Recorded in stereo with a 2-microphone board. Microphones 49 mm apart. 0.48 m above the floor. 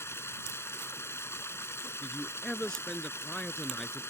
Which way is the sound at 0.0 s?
65° left (ahead or behind).